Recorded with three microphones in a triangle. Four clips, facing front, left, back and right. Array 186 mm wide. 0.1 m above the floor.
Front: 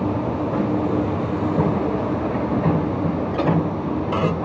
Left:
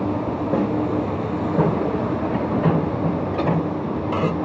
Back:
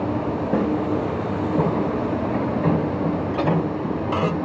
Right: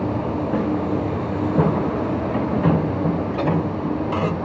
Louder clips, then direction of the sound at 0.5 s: Left 2 dB, back 3 dB; 120° left.